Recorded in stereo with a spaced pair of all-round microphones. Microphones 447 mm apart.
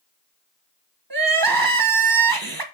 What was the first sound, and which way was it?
Crying, 50° right (ahead or behind).